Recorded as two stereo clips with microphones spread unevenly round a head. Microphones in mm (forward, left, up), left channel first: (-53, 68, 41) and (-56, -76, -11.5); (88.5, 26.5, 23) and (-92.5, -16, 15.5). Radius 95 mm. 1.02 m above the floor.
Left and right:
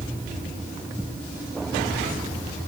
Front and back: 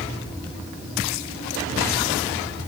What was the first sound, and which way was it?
Only background noise.